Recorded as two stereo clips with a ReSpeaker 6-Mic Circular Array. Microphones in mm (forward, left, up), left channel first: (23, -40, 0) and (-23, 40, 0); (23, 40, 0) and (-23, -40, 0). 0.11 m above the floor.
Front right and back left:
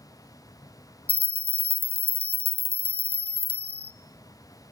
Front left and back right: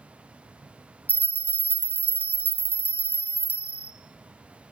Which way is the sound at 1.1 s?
125° left.